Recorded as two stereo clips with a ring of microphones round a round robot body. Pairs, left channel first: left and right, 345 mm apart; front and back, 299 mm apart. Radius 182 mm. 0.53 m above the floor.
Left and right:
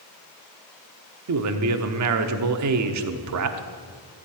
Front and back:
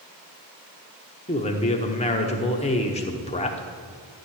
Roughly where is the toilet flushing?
I don't hear a toilet flushing.